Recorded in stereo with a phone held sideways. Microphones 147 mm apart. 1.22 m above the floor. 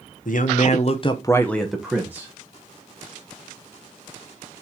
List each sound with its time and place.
0.2 s a man speaking: 65° left (ahead or behind), 1.1 m; by 2.3 s 15° right (ahead or behind), 1.4 m